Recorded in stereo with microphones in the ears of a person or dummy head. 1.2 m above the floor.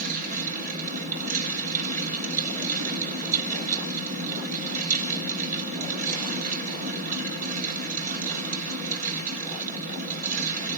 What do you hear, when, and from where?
0.0 s a fan: 40° right (ahead or behind), 5 m